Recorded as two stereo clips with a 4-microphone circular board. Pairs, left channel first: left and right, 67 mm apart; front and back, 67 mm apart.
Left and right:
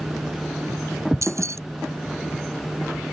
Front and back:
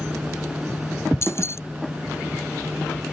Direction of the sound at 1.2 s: 50° right.